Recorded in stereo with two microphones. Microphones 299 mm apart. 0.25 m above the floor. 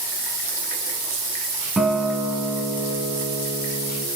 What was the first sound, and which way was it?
A guitar, 5° right (ahead or behind).